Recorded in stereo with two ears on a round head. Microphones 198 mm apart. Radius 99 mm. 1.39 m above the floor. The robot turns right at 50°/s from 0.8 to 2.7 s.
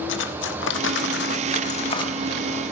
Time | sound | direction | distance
0.1 | cutlery clinking | 95° left | 1.3 m